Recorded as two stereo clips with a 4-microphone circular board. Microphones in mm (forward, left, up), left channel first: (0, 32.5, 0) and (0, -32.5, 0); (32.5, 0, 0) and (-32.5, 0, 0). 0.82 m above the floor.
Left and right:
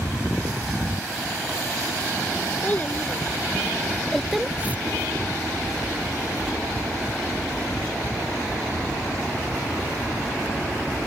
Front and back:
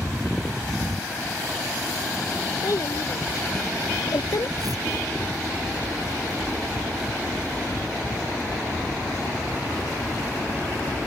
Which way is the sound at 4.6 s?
155° right.